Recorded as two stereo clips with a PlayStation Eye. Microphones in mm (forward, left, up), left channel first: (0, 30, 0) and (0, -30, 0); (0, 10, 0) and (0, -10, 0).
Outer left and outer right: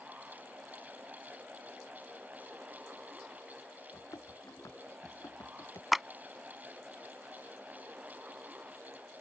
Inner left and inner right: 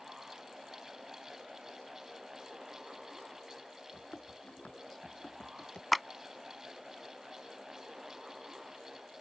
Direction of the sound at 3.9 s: 65° left (ahead or behind).